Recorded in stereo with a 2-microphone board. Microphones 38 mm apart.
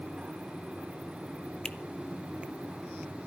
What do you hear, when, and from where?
1.6 s a finger snap: 25° left (ahead or behind), 0.7 m